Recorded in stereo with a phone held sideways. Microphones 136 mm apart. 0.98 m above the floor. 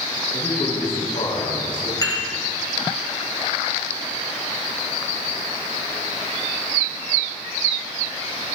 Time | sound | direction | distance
0.3 | a man speaking | 85° left | 6.5 m
2.0 | dishes clattering | 30° left (ahead or behind) | 3 m